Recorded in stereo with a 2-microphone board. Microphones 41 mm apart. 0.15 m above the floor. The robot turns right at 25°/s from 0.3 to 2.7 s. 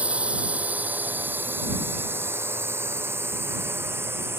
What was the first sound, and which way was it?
A drone, 35° right (ahead or behind).